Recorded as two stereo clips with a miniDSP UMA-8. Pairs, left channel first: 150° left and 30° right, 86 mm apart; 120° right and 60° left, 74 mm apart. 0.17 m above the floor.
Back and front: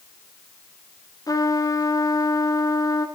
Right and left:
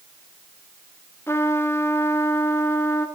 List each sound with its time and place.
1.3 s a trumpet: 170° right, 1.6 m